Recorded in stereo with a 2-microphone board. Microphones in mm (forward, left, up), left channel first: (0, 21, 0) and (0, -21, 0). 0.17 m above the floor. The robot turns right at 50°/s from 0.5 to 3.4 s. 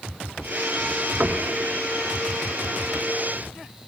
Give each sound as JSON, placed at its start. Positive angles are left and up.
{"t": 1.2, "sound": "knocking", "side_deg": -30, "distance_m": 1.3}